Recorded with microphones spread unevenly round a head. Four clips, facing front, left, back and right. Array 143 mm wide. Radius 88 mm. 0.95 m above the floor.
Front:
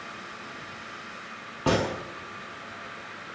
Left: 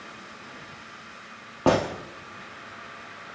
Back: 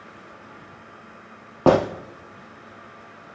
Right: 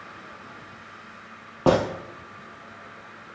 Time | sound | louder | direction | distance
1.7 | a gunshot | right 2 dB, back 8 dB | 175° left | 1.5 m